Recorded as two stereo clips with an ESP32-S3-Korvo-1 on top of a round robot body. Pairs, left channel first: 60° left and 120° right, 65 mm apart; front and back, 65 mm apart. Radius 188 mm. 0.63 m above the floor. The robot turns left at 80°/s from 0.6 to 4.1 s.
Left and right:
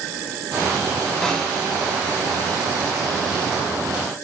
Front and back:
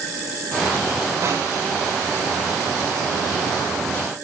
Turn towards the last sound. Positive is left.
turn(degrees=-80)